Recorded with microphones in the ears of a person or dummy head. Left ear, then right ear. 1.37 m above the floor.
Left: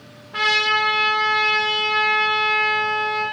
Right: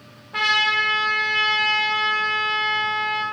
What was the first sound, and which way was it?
A trumpet, 5° right (ahead or behind).